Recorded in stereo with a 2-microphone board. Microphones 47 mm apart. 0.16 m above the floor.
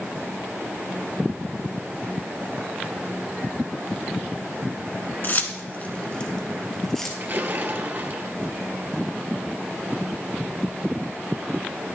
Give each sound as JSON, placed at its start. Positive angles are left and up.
{"t": 5.2, "sound": "keys jangling", "side_deg": 45, "distance_m": 1.1}
{"t": 7.2, "sound": "a splash", "side_deg": -50, "distance_m": 1.4}